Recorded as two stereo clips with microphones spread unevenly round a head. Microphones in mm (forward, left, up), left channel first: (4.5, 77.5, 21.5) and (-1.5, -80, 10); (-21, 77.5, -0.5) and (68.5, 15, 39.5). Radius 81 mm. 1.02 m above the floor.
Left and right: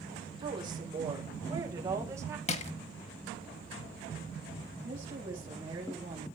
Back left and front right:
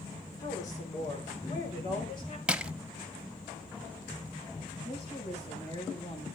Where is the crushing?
40° left, 1.0 m.